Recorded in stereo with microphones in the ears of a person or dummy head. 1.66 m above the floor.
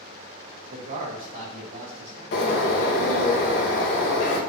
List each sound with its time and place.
0.7 s a man speaking: 35° right (ahead or behind), 0.7 m; by 2.2 s 40° right (ahead or behind), 2 m
2.3 s a bird: 45° left (ahead or behind), 0.7 m